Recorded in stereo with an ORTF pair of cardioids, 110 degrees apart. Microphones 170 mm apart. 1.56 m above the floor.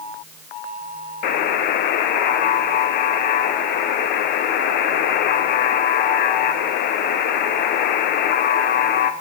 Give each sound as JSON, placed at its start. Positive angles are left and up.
{"t": 1.2, "sound": "a buzzer", "azimuth_deg": 70, "distance_m": 0.9}